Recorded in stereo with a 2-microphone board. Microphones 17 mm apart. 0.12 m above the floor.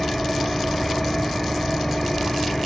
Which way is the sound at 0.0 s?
15° left (ahead or behind).